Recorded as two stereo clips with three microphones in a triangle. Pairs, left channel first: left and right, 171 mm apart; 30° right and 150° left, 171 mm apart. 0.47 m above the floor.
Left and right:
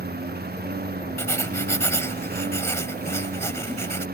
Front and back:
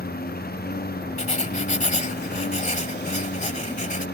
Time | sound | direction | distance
0.0 | a lawn mower | 60° right | ?
1.2 | writing | 15° left | ?